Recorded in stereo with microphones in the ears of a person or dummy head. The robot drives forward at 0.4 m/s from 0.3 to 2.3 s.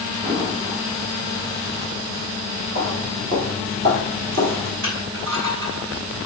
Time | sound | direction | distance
0.2 | an explosion | 30° right (ahead or behind) | 3 m
2.8 | footsteps | 50° right (ahead or behind) | 2.5 m
4.8 | crushing | 80° right | 3.5 m